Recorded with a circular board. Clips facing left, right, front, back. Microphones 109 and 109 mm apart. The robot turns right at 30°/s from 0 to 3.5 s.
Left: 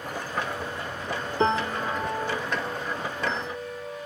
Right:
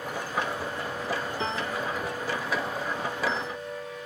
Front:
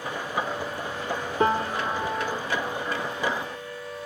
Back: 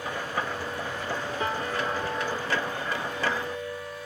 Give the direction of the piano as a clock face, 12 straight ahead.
10 o'clock.